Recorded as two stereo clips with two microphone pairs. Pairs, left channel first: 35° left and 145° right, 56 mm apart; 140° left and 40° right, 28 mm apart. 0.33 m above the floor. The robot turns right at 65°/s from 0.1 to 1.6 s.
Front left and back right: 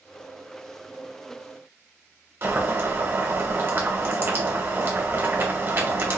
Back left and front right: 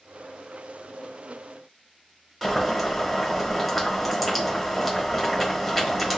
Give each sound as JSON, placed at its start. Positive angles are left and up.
{"t": 2.4, "sound": "boiling", "azimuth_deg": -125, "distance_m": 1.0}